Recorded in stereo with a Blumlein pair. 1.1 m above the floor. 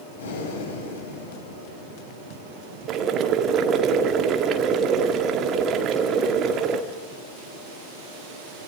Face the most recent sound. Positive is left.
turn(degrees=-30)